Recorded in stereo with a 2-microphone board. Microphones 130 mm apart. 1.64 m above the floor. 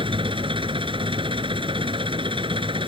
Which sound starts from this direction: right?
An engine running, at 0.0 s.